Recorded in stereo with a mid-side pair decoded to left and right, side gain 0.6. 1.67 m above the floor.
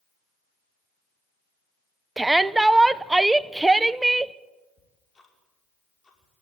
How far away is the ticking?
About 5 m.